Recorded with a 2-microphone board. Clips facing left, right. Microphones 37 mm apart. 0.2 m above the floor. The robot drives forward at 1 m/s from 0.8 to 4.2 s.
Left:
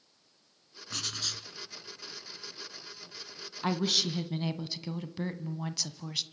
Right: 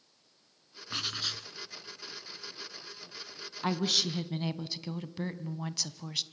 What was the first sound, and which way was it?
Writing, 20° right (ahead or behind).